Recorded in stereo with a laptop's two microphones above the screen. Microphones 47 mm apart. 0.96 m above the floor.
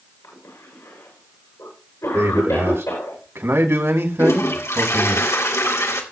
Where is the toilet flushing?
85° left, 2.5 m.